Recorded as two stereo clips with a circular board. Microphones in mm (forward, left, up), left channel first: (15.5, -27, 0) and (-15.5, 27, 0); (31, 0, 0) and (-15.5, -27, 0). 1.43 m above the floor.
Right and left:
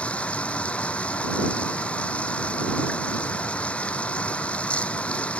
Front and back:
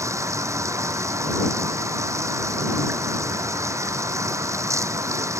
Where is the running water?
130° right.